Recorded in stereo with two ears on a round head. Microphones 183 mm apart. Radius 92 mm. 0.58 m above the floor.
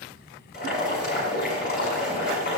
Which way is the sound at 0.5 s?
50° left (ahead or behind).